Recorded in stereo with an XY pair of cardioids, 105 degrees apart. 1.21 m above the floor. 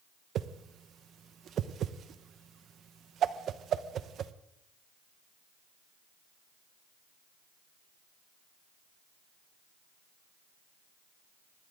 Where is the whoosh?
60° right, 0.9 m.